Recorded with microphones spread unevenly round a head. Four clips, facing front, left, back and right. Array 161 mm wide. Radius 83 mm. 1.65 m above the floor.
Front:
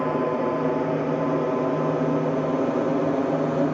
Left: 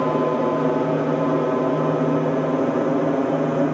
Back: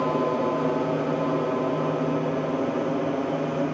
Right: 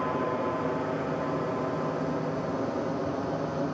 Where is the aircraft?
85° left; by 3.7 s 65° left.